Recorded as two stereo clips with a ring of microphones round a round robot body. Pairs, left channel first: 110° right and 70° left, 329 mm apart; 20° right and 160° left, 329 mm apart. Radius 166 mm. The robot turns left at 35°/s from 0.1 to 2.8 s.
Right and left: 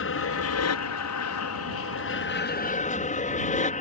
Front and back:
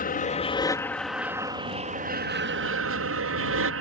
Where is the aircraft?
80° right; by 3.8 s 175° right.